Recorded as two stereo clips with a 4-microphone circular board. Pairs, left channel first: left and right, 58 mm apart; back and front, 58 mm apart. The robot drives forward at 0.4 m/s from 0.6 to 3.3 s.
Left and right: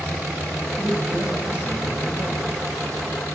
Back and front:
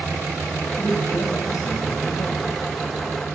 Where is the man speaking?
165° right, 5 m.